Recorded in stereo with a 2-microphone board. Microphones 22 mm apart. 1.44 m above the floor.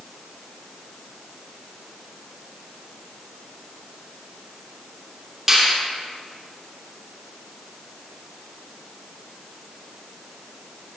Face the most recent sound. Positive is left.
turn(degrees=-10)  # may be behind; listen again after turning